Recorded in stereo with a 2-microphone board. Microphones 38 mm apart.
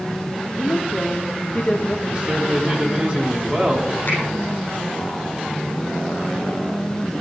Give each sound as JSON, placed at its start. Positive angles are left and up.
{"t": 0.6, "sound": "a woman speaking", "side_deg": 35, "distance_m": 1.6}
{"t": 2.1, "sound": "a man speaking", "side_deg": -25, "distance_m": 4.0}
{"t": 4.1, "sound": "a finger snap", "side_deg": 55, "distance_m": 8.5}